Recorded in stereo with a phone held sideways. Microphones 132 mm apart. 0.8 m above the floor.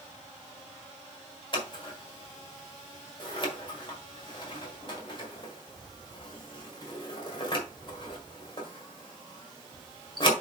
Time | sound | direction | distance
1.5 | scissors | 40° left (ahead or behind) | 1.7 m